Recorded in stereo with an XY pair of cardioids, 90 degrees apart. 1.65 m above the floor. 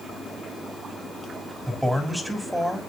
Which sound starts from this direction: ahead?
A man speaking, at 1.7 s.